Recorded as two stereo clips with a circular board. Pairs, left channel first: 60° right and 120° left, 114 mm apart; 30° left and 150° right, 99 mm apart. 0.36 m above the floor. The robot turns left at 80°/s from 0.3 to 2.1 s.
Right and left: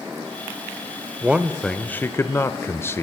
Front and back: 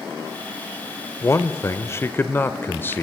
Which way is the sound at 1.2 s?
55° left.